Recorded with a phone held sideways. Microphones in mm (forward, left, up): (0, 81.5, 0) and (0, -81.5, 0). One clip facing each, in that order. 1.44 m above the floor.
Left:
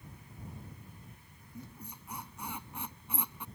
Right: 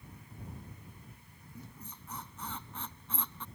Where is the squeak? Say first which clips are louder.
Left 3 dB; 10° left (ahead or behind).